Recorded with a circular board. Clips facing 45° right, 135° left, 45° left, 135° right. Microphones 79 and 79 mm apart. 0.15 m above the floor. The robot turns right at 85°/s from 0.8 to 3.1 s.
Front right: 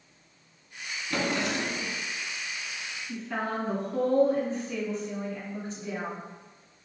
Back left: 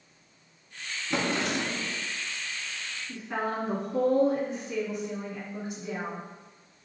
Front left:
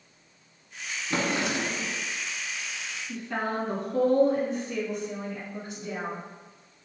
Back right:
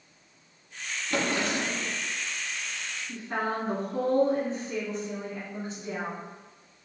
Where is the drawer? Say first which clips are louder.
Even, even; 75° left, 0.5 m; by 2.0 s 150° left, 0.5 m.